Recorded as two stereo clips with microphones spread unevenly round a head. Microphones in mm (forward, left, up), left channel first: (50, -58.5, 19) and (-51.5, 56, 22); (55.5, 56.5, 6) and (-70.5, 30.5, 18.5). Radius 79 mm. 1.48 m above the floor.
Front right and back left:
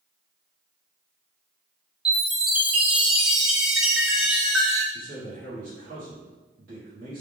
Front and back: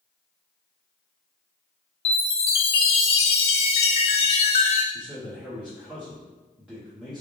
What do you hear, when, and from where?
2.0 s a chime: 45° left, 0.6 m
4.9 s a man speaking: 110° left, 1.1 m